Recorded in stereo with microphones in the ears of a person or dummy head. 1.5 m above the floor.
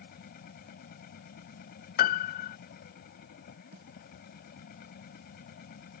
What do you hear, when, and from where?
0.0 s a machine running: 55° left (ahead or behind)
2.0 s a piano: 50° left (ahead or behind)
3.7 s a snare drum: 50° right (ahead or behind)